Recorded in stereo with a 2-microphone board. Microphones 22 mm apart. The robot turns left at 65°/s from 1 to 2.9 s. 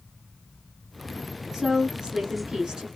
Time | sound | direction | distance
1.5 | a woman speaking | 30° right | 1.3 m